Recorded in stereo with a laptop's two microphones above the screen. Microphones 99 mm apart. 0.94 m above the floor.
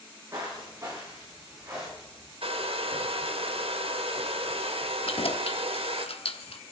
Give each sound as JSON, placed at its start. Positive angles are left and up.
{"t": 0.3, "sound": "footsteps", "side_deg": -25, "distance_m": 6.0}
{"t": 2.4, "sound": "a hair dryer", "side_deg": -70, "distance_m": 1.5}
{"t": 5.1, "sound": "keys jangling", "side_deg": 75, "distance_m": 1.1}